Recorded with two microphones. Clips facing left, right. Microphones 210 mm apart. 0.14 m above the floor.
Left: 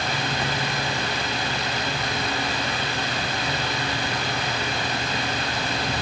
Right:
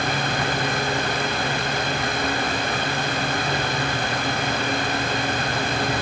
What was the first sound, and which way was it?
Only background noise.